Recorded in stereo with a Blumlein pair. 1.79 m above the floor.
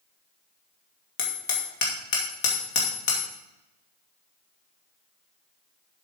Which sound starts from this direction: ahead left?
Hammering, at 1.2 s.